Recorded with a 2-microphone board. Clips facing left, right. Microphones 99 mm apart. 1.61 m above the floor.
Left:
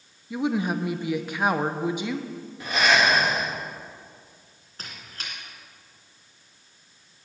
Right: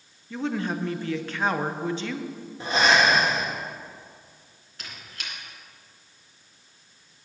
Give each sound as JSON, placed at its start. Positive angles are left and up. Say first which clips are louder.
{"t": 0.3, "sound": "a woman speaking", "louder": "left 3 dB", "side_deg": 10, "distance_m": 0.6}
{"t": 2.6, "sound": "breathing", "louder": "right 1 dB", "side_deg": -30, "distance_m": 1.6}
{"t": 4.8, "sound": "a squeak", "louder": "left 1 dB", "side_deg": 40, "distance_m": 2.5}